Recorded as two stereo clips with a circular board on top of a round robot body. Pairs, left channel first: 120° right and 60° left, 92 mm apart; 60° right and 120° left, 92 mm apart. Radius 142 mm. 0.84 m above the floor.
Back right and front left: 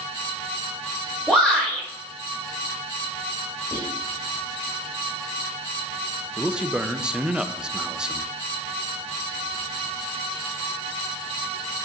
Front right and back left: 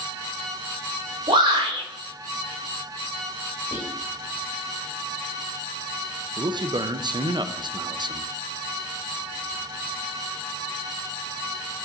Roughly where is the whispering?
Behind.